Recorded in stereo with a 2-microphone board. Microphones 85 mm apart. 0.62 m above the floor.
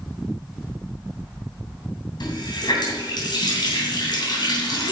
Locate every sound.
2.2 s a running tap: 60° left (ahead or behind), 2.5 m